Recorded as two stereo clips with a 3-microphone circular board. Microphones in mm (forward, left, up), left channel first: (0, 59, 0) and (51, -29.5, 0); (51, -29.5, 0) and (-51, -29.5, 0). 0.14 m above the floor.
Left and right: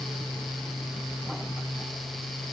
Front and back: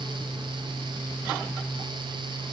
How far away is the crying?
No crying in this recording.